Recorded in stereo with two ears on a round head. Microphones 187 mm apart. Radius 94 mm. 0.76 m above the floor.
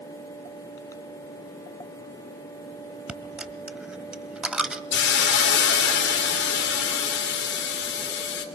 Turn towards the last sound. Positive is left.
turn(degrees=55)  # may be behind; listen again after turning